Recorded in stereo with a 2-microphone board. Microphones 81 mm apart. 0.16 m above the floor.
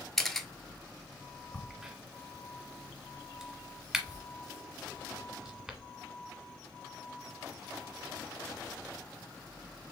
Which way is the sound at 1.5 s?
5° right (ahead or behind).